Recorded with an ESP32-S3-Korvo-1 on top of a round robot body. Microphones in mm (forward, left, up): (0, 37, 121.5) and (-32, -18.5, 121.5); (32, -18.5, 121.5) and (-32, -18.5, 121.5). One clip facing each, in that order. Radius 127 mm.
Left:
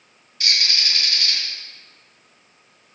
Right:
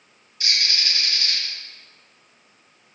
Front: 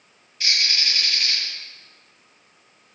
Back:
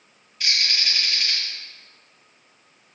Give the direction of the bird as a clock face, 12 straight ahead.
9 o'clock.